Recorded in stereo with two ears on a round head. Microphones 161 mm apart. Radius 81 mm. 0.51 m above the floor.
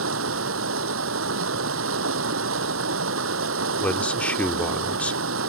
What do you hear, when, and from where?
0.0 s running water: 85° right
3.8 s a man speaking: 5° left (ahead or behind)